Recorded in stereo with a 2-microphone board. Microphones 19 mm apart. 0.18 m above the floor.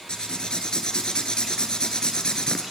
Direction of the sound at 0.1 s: 50° left (ahead or behind).